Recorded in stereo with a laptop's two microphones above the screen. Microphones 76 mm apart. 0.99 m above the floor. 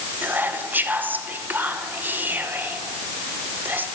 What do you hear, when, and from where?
0.2 s whispering: 25° right (ahead or behind), 0.8 m